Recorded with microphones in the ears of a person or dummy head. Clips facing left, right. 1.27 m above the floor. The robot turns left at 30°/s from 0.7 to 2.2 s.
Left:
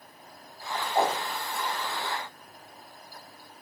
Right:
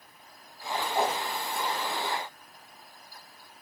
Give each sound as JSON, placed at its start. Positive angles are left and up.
{"t": 0.9, "sound": "a whoosh", "side_deg": 30, "distance_m": 1.7}